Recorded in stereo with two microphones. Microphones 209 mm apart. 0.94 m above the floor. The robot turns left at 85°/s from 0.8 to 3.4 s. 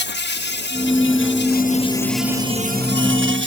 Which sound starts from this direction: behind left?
An insect, at 0.0 s.